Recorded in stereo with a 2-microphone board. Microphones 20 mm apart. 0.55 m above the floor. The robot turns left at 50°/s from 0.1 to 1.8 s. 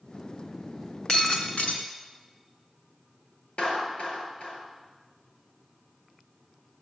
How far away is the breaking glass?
About 3.5 m.